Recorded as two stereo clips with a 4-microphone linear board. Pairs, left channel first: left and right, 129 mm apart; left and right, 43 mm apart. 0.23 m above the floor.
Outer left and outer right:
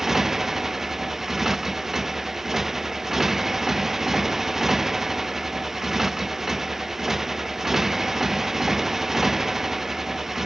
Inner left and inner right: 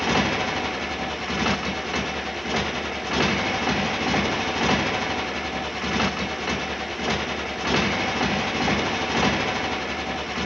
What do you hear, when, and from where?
0.0 s a motorcycle: centre (ahead or behind)